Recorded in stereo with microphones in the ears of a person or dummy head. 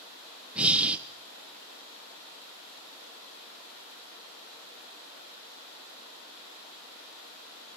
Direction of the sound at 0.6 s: 10° right (ahead or behind).